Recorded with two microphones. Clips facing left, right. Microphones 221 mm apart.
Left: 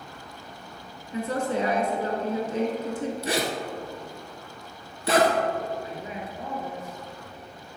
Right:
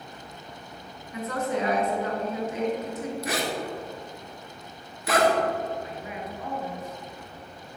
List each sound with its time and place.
1.1 s a woman speaking: 30° left (ahead or behind), 1.3 m
3.2 s a zipper: 30° left (ahead or behind), 1.0 m
5.8 s a man speaking: 30° left (ahead or behind), 2.0 m